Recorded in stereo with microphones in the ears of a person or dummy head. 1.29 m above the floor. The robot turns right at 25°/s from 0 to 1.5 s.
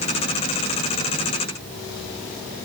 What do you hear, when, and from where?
Only background noise.